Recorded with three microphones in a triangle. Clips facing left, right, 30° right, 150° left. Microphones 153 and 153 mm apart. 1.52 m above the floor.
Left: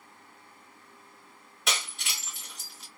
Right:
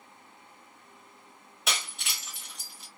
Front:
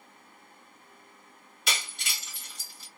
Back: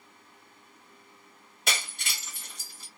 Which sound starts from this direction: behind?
Breaking glass, at 1.7 s.